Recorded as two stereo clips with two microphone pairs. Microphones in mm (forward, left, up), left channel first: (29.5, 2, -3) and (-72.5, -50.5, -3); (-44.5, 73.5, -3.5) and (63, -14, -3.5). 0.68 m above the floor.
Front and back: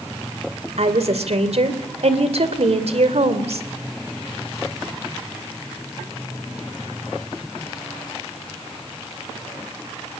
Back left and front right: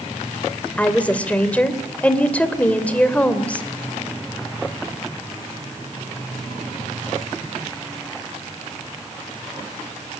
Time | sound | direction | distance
0.8 | a woman speaking | 140° right | 2.5 m